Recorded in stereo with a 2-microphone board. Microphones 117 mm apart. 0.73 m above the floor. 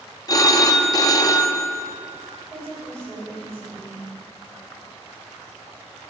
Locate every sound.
0.3 s a phone ringing: 30° left (ahead or behind), 0.5 m
2.5 s a woman speaking: 25° right (ahead or behind), 3 m